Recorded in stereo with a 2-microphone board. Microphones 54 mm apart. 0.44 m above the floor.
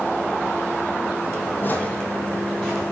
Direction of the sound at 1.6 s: 40° left (ahead or behind).